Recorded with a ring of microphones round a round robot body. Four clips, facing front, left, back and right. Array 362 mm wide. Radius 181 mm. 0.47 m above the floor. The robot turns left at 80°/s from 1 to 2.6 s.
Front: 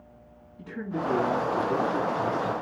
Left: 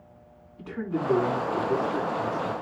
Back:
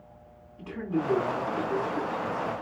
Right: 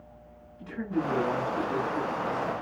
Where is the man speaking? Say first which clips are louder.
Left 1 dB, back 2 dB; 130° left, 5.5 m; by 2.5 s 10° left, 5.5 m.